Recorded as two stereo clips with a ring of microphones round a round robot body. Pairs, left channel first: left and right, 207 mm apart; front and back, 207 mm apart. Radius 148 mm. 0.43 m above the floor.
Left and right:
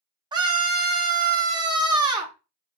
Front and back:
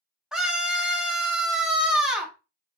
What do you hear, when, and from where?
0.3 s a scream: 100° right, 0.8 m